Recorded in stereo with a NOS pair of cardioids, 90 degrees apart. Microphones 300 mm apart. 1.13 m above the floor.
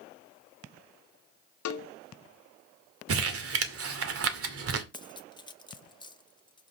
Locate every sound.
1.6 s a cowbell: 65° left, 1.4 m
3.1 s crumpling: 50° right, 2 m
4.9 s cutlery clinking: 15° left, 1.2 m